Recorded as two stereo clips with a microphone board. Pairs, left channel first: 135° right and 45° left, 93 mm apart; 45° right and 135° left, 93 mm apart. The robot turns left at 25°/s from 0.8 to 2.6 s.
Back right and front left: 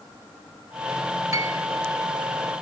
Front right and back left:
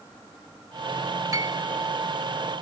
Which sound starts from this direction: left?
A piano, at 1.3 s.